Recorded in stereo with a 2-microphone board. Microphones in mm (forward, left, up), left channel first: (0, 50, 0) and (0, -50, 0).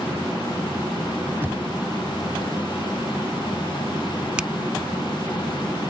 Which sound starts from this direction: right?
Knocking, at 1.4 s.